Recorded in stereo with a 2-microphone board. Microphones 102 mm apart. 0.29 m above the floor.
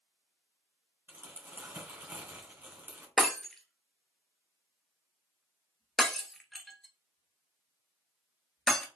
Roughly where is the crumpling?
Right.